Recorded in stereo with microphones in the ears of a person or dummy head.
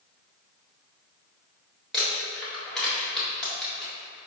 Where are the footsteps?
No footsteps in this recording.